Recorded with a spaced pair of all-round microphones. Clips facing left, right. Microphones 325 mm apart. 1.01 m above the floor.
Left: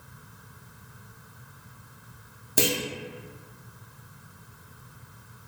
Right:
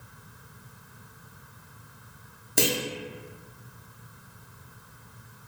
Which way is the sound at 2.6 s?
Centre (ahead or behind).